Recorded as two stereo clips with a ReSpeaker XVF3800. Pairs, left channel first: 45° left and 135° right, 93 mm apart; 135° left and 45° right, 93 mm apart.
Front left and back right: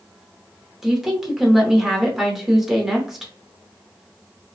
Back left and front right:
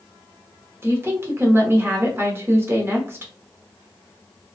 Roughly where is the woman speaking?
Ahead right.